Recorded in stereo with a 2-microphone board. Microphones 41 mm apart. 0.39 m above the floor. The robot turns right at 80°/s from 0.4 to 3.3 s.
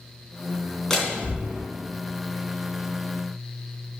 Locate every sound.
0.9 s a door slam: 10° left (ahead or behind), 3 m; by 1.6 s 45° right (ahead or behind), 3 m